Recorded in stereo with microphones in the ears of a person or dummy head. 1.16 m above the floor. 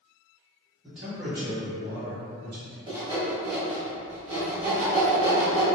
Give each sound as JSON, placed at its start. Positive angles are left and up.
{"t": 0.8, "sound": "a man speaking", "side_deg": -5, "distance_m": 1.1}
{"t": 2.9, "sound": "sawing", "side_deg": -20, "distance_m": 1.0}